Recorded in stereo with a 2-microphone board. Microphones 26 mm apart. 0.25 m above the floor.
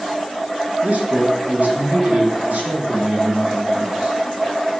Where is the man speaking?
65° right (ahead or behind), 3 m; by 4.2 s 50° right (ahead or behind), 3.5 m.